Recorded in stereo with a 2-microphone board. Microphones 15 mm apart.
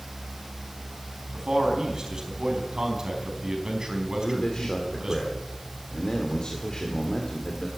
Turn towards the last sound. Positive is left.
turn(degrees=65)  # may be behind; listen again after turning